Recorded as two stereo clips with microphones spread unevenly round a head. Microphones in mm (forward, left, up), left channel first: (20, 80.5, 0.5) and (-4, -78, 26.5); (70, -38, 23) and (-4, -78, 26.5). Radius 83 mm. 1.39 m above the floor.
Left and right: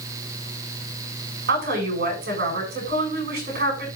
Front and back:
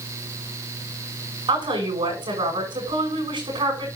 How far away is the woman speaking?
About 7.5 m.